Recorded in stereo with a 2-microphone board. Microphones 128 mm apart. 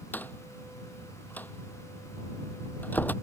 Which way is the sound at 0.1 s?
15° left (ahead or behind).